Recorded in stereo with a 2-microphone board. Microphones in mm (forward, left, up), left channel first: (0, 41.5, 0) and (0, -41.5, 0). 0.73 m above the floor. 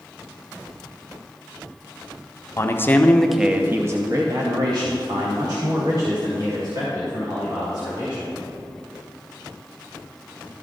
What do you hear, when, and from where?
2.6 s a man speaking: 35° left (ahead or behind), 0.7 m; by 8.4 s 60° right (ahead or behind), 3.5 m